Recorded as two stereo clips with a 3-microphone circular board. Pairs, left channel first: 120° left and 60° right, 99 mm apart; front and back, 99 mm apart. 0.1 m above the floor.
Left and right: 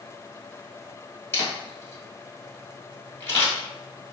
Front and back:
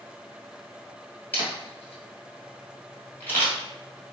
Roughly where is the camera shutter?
Ahead left.